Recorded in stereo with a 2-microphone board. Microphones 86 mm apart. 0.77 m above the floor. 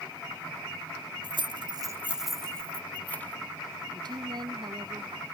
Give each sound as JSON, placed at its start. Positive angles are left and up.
{"t": 1.2, "sound": "keys jangling", "side_deg": -55}
{"t": 3.9, "sound": "a woman speaking", "side_deg": -60}